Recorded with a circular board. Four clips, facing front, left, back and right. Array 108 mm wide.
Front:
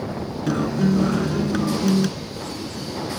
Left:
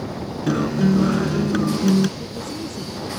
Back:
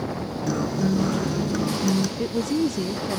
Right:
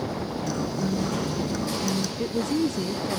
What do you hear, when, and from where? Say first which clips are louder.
0.5 s a guitar: left 11 dB, front 3 dB; 70° left
2.2 s a woman speaking: right 6 dB, back 9 dB; 145° right